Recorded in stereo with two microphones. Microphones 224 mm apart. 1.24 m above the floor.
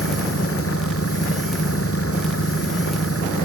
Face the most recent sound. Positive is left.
turn(degrees=80)